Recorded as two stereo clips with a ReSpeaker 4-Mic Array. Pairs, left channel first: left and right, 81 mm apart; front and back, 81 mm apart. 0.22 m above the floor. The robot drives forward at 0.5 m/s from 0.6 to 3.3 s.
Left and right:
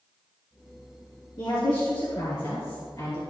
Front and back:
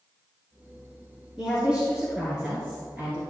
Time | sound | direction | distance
1.4 | a woman speaking | 95° left | 3 m